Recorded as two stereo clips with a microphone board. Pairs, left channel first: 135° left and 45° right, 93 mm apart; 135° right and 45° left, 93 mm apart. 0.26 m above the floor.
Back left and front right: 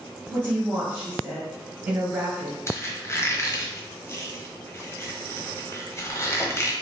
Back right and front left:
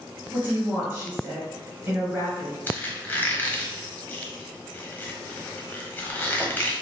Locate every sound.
0.3 s a woman speaking: straight ahead, 1.2 m
2.7 s a squeak: 170° left, 1.1 m